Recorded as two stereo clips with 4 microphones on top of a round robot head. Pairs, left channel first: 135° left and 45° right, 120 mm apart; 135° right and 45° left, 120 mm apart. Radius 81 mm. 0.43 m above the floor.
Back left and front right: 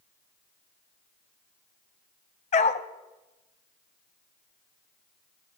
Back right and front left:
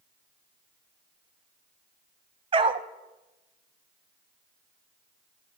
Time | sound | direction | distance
2.5 | a dog barking | 95° left | 0.6 m